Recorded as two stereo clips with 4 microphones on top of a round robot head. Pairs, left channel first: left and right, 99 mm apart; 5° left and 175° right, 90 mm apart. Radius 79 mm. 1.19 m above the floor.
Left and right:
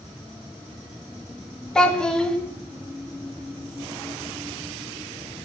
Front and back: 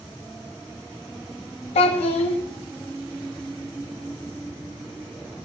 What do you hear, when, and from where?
1.8 s a child speaking: 5° left, 1.5 m